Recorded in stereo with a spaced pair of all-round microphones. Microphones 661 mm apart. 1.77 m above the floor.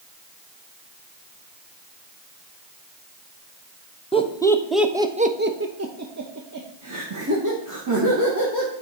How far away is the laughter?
About 0.8 m.